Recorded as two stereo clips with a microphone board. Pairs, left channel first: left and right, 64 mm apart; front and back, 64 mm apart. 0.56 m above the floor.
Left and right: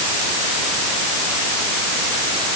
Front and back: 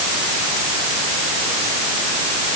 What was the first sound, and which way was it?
Only background noise.